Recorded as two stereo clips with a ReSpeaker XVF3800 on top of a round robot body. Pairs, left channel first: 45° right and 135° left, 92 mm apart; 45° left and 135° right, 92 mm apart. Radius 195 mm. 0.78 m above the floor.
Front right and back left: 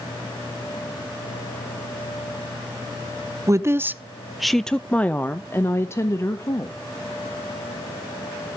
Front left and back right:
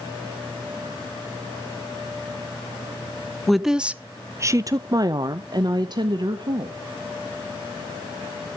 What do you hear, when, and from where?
3.5 s a woman speaking: 135° left, 1.0 m; by 6.8 s 100° right, 2 m